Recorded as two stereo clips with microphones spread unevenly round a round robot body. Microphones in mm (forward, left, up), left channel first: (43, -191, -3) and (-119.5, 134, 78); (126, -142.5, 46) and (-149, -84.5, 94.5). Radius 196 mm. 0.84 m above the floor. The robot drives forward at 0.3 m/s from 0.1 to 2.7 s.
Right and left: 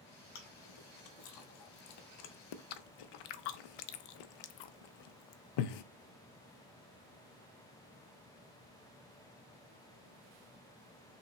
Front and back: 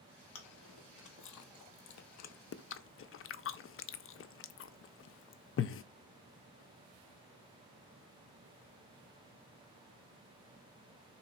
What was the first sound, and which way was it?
Chewing, 25° right.